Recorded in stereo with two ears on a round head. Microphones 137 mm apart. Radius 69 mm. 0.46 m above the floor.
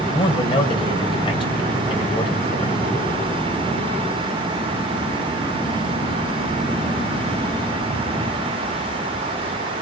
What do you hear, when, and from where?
0.1 s a man speaking: 35° left (ahead or behind), 2.5 m